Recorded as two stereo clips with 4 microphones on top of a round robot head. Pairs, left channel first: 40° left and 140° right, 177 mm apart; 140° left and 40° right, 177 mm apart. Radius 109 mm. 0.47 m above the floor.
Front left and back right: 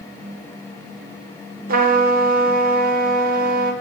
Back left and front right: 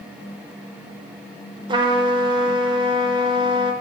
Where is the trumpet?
105° right, 0.9 m.